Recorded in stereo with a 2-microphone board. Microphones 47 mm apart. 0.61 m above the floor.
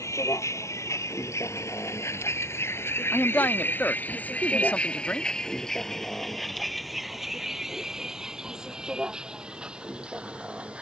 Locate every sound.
0.0 s a vehicle: 85° left; by 10.8 s 20° right (ahead or behind)
3.1 s a man speaking: 35° left (ahead or behind)